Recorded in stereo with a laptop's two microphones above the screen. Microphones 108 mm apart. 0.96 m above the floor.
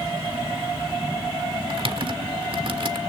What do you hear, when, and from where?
1.7 s typing on a keyboard: 55° right (ahead or behind), 1.5 m